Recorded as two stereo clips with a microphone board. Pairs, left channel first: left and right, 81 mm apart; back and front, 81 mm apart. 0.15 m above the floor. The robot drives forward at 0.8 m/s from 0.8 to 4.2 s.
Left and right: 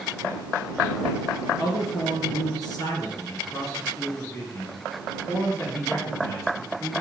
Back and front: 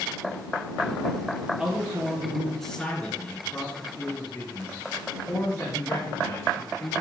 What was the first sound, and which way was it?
A man speaking, 65° left.